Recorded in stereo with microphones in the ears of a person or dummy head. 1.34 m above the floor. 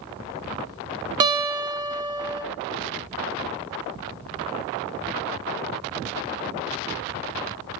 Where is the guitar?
25° right (ahead or behind), 0.7 m.